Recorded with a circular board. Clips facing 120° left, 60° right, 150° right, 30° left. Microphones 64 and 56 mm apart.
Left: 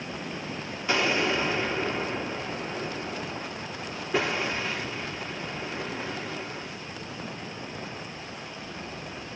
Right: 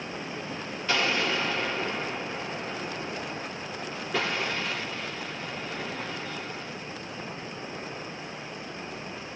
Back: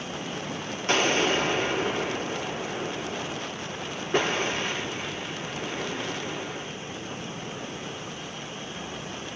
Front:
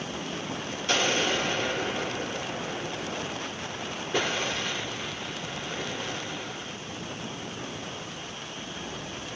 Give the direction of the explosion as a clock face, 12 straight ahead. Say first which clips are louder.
Left 2 dB, back 3 dB; 6 o'clock.